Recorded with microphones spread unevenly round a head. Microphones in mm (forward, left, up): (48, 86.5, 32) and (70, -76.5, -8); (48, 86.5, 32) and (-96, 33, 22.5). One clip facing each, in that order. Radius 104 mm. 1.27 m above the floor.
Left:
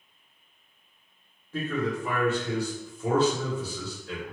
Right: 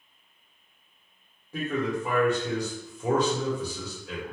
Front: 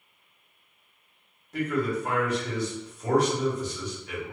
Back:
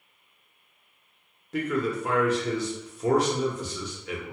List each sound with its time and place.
1.5 s a man speaking: 160° right, 1.1 m